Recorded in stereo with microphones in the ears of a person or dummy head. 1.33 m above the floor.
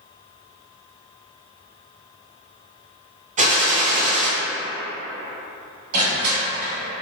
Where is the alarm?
I don't hear an alarm.